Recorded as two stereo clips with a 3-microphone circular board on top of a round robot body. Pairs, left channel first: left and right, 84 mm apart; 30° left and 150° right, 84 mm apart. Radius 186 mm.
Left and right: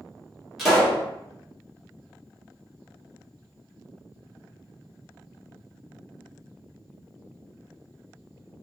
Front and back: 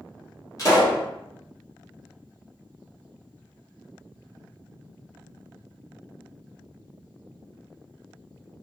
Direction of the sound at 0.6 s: Straight ahead.